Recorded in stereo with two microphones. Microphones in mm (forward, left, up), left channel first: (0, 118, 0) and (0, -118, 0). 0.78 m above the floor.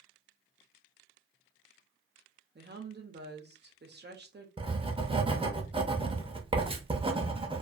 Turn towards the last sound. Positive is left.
turn(degrees=-25)  # may be behind; listen again after turning